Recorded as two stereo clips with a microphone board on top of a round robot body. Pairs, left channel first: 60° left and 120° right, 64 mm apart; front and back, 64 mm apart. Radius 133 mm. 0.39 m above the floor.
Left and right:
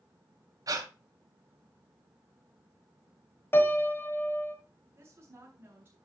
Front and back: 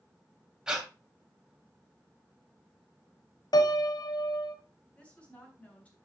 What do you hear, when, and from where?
0.7 s breathing: 100° right, 2.5 m
3.5 s a piano: 5° left, 1.4 m
5.0 s a woman speaking: 70° right, 4 m